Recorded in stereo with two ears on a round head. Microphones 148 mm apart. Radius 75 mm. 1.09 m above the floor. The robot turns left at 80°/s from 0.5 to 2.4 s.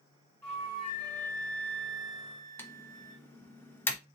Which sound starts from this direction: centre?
Typing on a keyboard, at 2.6 s.